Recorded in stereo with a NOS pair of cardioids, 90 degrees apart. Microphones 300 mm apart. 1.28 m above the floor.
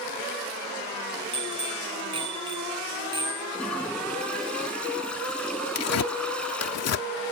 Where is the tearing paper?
55° left.